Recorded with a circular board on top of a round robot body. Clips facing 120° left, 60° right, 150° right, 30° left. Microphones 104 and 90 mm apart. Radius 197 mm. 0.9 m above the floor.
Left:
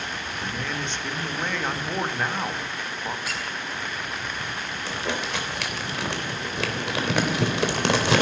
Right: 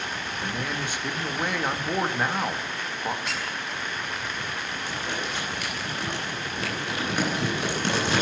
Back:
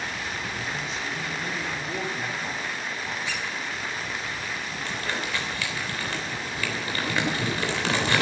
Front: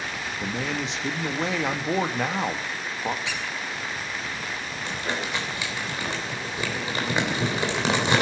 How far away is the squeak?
About 5.5 m.